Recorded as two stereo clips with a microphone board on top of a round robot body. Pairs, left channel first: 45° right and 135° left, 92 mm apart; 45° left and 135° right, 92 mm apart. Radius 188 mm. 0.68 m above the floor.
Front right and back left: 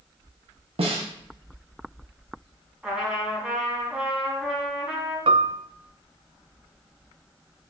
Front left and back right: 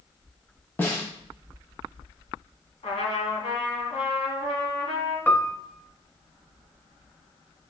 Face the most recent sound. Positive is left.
turn(degrees=120)